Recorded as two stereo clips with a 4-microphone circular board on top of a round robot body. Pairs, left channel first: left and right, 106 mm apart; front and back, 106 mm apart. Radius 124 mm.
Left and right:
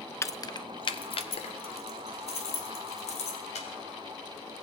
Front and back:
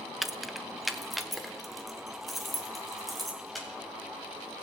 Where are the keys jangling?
95° left, 0.6 m; by 3.7 s 90° left, 2.5 m.